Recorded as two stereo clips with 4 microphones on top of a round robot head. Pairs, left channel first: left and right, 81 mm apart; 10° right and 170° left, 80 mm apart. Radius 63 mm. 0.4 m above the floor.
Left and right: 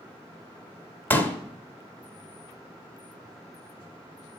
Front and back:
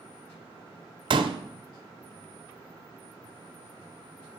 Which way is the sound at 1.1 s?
155° left.